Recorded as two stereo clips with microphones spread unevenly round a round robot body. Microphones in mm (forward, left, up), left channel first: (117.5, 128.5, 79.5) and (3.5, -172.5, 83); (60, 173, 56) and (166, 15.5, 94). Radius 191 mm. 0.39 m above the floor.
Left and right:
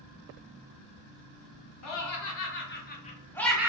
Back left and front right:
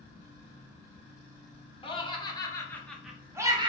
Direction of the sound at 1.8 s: 75° left.